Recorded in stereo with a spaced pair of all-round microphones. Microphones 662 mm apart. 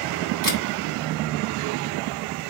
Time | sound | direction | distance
0.4 | a camera shutter | 30° right (ahead or behind) | 1.9 m